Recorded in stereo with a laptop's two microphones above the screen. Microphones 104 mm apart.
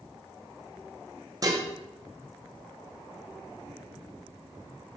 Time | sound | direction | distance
1.4 | dishes clattering | 35° right (ahead or behind) | 0.6 m